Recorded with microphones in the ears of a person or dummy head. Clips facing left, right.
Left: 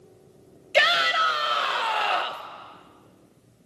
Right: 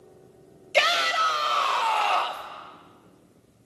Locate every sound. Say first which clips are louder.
0.7 s a shout: left 1 dB; 15° left (ahead or behind), 1.2 m